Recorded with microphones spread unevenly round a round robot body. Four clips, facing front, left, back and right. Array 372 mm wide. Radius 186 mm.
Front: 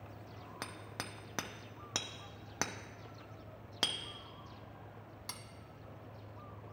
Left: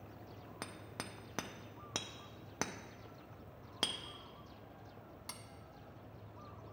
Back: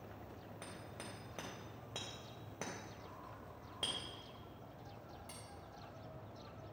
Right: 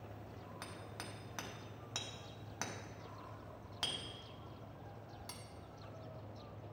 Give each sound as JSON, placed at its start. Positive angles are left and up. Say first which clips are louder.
{"t": 0.6, "sound": "hammering", "louder": "left 4 dB, front 6 dB", "azimuth_deg": 45, "distance_m": 0.6}